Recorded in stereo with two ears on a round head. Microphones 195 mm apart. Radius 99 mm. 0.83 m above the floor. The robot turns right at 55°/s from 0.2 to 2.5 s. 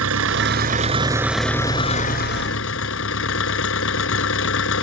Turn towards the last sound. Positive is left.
turn(degrees=60)